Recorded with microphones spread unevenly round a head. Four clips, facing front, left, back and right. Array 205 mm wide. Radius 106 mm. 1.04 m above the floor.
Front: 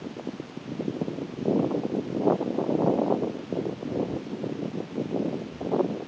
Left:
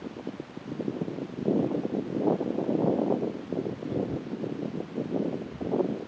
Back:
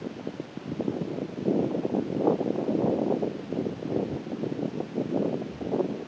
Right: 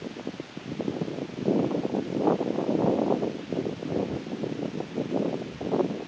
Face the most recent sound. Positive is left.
No sound to turn to.